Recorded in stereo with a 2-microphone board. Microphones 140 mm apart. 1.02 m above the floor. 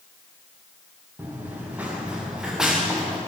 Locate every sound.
1.2 s running footsteps: 15° right (ahead or behind), 7.5 m; by 3.2 s centre (ahead or behind), 6.5 m